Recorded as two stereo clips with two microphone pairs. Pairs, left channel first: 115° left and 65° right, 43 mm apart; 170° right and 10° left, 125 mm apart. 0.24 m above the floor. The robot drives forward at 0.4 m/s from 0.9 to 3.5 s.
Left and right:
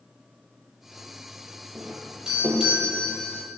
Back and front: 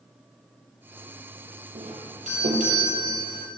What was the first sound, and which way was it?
A doorbell, 10° left.